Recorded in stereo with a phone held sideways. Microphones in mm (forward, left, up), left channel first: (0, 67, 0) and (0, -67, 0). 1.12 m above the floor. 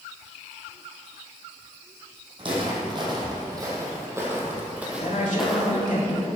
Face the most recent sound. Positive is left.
turn(degrees=75)  # may be behind; listen again after turning